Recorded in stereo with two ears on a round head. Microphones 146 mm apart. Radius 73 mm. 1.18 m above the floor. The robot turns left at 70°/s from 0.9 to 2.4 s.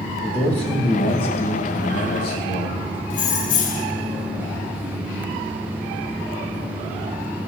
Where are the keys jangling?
50° left (ahead or behind), 0.5 m.